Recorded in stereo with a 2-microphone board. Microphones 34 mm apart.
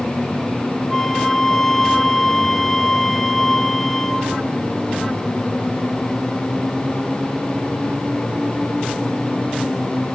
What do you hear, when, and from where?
0.9 s a flute: 10° left (ahead or behind), 2 m